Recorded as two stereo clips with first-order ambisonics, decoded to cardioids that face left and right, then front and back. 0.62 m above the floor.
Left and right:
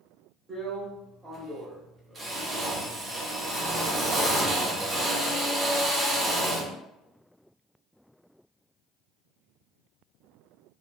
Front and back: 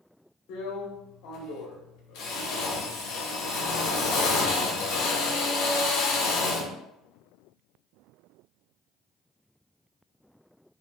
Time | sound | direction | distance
0.5 | a drill | 20° right | 0.7 m